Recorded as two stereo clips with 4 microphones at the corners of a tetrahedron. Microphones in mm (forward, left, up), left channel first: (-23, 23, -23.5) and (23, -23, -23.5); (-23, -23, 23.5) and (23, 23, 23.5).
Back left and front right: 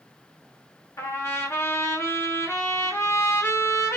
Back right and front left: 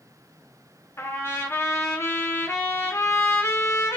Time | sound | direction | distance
1.0 | a trumpet | 175° left | 2 m